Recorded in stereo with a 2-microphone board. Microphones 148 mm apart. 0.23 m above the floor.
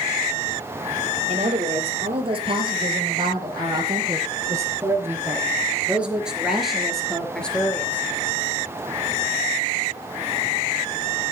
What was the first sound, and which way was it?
A woman speaking, 45° right (ahead or behind).